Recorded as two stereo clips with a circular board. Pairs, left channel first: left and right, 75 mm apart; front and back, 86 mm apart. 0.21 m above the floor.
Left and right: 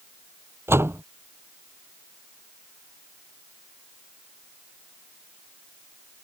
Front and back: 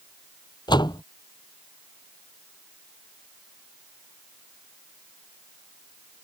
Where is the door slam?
35° right.